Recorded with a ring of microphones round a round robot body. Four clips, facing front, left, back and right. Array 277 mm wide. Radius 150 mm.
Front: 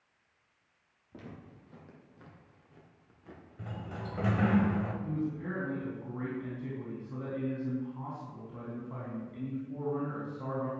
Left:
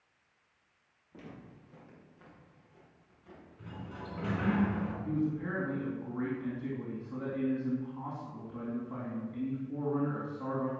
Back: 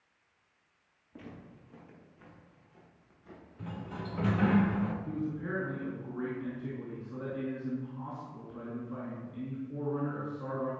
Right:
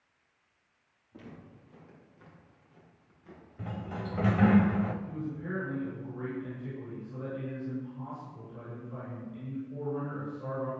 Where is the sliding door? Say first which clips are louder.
Right 7 dB, back 1 dB; 75° right, 1.4 m.